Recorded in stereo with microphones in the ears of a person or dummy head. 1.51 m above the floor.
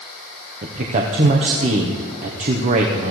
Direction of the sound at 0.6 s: 40° right (ahead or behind).